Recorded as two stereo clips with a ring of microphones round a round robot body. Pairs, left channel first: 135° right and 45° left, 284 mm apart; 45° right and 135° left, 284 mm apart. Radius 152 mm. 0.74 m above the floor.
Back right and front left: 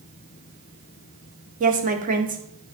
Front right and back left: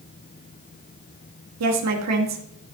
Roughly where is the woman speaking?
Left.